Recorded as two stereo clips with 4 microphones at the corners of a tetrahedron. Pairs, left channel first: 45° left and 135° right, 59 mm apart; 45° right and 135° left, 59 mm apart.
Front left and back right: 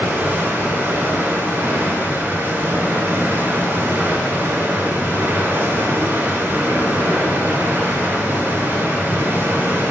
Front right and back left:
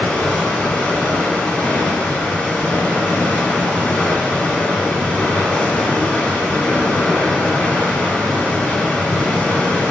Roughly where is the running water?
Right.